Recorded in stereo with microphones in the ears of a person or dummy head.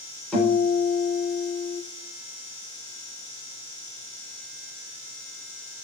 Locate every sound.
0.3 s a guitar: 5° left (ahead or behind), 1.8 m